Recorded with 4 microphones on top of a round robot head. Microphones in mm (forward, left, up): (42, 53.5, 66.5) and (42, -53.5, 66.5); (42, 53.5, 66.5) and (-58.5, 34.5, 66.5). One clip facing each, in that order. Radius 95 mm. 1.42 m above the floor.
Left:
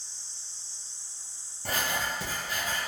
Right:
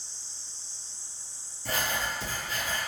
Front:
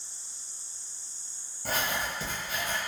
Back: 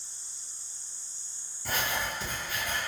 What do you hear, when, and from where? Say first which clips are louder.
1.6 s writing: even, front 1 dB; 60° left, 1.2 m